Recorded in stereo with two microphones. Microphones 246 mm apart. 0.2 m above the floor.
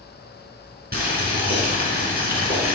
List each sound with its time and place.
0.9 s boiling: 40° right (ahead or behind), 2.5 m